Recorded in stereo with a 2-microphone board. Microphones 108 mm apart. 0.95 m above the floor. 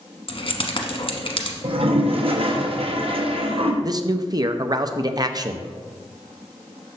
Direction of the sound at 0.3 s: 60° left (ahead or behind).